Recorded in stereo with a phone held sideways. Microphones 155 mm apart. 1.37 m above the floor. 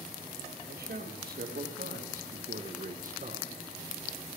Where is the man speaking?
80° right, 2.5 m; by 3.5 s 50° right (ahead or behind), 1.3 m.